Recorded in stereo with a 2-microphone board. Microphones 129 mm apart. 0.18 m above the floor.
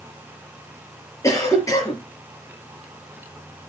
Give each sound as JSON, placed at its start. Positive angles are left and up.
{"t": 1.2, "sound": "a cough", "side_deg": 25, "distance_m": 4.0}